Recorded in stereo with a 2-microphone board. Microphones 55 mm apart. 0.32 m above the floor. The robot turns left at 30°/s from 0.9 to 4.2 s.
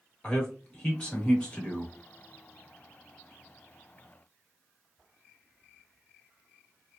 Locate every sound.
0.2 s a man speaking: 20° left (ahead or behind), 1.1 m